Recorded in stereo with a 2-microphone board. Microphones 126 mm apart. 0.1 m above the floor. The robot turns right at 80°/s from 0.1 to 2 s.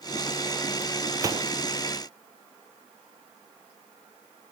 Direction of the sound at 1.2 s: 20° right (ahead or behind).